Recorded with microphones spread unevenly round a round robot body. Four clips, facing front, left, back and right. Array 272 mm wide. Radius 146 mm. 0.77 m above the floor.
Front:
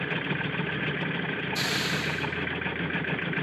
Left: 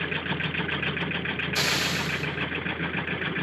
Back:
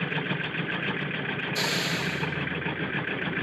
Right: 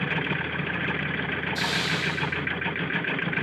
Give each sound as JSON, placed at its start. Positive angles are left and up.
{"t": 1.6, "sound": "a hiss", "azimuth_deg": 145, "distance_m": 7.0}